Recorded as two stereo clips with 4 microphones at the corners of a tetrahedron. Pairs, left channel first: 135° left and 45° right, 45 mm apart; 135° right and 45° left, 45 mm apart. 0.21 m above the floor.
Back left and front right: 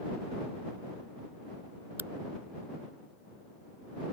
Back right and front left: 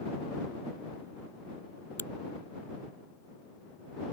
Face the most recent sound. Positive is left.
turn(degrees=-95)